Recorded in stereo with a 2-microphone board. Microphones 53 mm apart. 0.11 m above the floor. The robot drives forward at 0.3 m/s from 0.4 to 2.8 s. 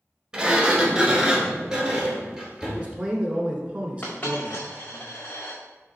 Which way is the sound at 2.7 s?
25° right (ahead or behind).